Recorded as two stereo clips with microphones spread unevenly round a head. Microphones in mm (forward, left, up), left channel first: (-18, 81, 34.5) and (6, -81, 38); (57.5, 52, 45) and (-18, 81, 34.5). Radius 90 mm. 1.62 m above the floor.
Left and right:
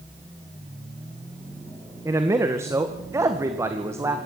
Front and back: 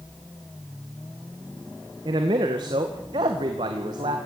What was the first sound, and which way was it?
A man speaking, 155° right.